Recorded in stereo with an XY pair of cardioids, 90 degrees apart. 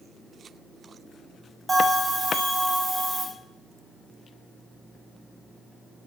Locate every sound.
1.7 s a bell: 25° right, 1.8 m